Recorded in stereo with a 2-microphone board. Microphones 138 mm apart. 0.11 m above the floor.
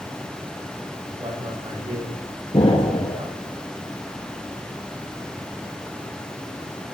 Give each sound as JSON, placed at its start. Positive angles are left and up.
{"t": 1.2, "sound": "a man speaking", "side_deg": -40, "distance_m": 10.0}
{"t": 2.5, "sound": "an explosion", "side_deg": 45, "distance_m": 3.0}